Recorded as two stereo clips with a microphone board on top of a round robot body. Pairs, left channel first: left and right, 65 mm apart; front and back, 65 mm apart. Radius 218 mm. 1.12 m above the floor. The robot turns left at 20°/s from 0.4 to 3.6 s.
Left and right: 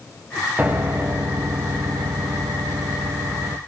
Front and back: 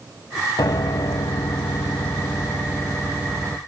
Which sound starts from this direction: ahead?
A piano, at 0.6 s.